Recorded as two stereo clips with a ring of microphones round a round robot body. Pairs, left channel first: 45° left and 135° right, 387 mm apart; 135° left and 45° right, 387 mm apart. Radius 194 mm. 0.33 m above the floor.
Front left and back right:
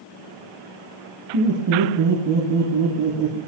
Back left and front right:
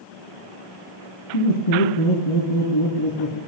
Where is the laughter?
170° left, 6 m; by 3.4 s 165° left, 8 m.